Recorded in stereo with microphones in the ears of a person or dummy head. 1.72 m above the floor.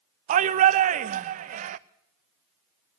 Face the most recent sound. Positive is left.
turn(degrees=-40)  # may be behind; listen again after turning